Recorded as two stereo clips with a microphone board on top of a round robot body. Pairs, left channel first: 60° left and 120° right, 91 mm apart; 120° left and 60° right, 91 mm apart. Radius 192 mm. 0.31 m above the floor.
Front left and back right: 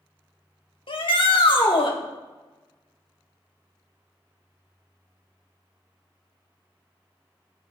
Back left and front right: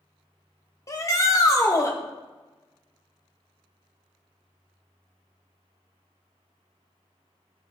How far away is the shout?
About 2 m.